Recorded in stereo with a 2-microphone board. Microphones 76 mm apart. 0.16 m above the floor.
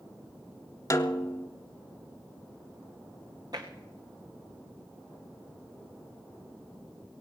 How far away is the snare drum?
About 0.7 m.